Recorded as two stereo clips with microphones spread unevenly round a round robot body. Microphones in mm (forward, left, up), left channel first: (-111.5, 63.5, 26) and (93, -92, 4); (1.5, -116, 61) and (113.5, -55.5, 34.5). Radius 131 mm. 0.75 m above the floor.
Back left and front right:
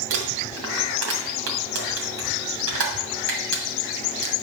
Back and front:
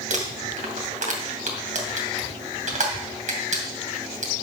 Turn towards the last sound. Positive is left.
turn(degrees=5)